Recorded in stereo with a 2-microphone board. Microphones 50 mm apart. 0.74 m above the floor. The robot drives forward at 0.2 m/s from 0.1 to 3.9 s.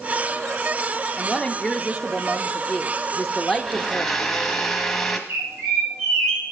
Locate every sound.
1.2 s a woman speaking: centre (ahead or behind), 1.0 m
3.6 s a blender: 5° left (ahead or behind), 1.1 m
5.3 s a bird: 60° right (ahead or behind), 9 m